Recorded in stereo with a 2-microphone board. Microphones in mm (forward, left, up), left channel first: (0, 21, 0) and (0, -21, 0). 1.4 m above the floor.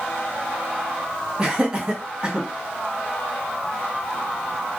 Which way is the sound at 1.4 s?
20° right (ahead or behind).